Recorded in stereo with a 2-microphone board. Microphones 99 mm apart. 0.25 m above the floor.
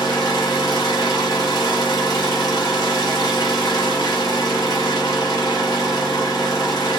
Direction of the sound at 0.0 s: 40° left (ahead or behind).